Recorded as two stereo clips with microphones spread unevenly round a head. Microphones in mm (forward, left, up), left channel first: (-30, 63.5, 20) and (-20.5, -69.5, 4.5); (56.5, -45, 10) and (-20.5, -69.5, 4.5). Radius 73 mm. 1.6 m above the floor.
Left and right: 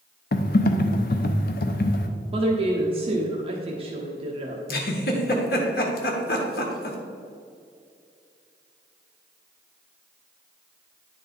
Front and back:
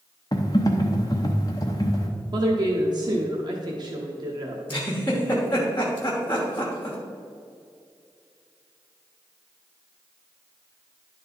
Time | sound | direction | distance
0.3 | typing on a keyboard | 80° left | 0.6 m
2.3 | a woman speaking | 135° right | 1.0 m
4.7 | a giggle | 95° left | 1.2 m